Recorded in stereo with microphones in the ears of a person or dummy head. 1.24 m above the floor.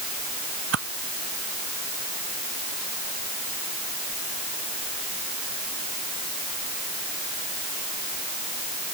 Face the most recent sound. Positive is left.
turn(degrees=-75)  # may be behind; listen again after turning